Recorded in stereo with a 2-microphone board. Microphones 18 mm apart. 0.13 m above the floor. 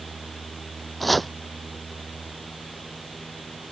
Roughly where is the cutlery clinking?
No cutlery clinking in this recording.